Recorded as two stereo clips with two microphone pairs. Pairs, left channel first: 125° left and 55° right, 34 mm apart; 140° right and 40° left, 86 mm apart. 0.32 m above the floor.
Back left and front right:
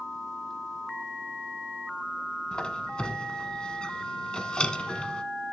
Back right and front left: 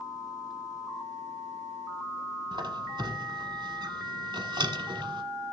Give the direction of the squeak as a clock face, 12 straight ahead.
10 o'clock.